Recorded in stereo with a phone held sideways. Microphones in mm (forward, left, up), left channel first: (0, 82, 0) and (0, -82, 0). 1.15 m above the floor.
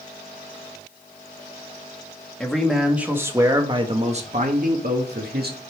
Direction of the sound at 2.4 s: 5° left (ahead or behind).